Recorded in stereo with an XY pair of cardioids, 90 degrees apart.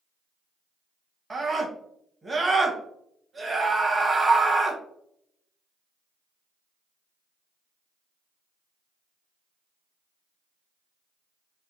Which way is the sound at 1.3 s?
25° right.